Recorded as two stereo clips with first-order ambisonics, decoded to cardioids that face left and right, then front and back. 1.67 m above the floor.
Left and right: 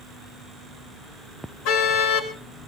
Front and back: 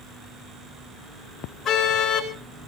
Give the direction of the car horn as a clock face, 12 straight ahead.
10 o'clock.